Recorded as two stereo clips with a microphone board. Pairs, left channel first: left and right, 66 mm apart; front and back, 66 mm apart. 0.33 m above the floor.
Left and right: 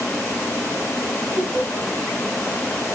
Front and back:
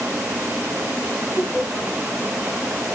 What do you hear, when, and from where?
1.4 s laughter: 125° right, 7.5 m